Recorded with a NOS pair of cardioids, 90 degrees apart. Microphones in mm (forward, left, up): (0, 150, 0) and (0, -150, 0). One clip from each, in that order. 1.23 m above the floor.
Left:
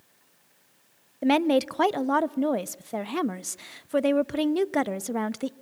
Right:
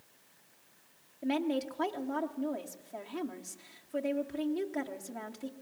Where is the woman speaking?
60° left, 0.5 m.